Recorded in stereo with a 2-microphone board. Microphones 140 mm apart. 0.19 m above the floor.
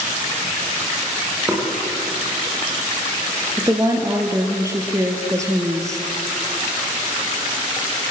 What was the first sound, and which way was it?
Knocking, 15° right (ahead or behind).